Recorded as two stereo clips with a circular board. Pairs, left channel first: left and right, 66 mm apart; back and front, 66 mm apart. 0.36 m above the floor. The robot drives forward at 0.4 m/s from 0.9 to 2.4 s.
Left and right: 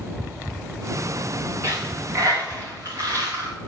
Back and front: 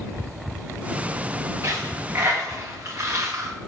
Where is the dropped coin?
45° right, 3.5 m; by 3.5 s 50° right, 3 m.